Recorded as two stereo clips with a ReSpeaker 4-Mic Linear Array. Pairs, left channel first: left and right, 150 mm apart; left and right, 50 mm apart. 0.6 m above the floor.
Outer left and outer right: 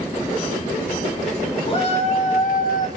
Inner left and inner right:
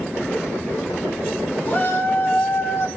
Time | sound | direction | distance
1.6 | a shout | 35° left (ahead or behind) | 2.0 m